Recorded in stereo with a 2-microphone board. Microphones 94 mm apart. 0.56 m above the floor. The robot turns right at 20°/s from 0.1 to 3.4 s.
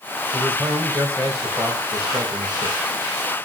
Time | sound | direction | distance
0.3 | a man speaking | 165° right | 3.5 m